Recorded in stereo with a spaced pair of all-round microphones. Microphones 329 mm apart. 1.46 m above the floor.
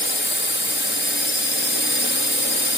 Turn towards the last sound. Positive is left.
turn(degrees=35)  # may be behind; listen again after turning